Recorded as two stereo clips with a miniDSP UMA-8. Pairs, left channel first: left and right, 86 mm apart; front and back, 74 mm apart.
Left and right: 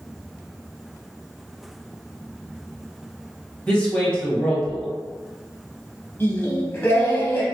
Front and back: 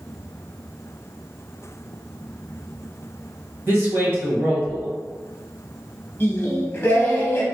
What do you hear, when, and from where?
3.7 s a man speaking: 160° left, 1.1 m
6.2 s singing: 40° left, 0.7 m